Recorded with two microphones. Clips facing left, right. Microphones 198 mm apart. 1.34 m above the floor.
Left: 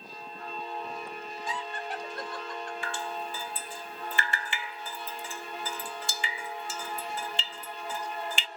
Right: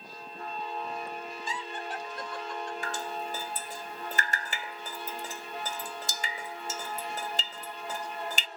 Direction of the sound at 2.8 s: 40° right (ahead or behind).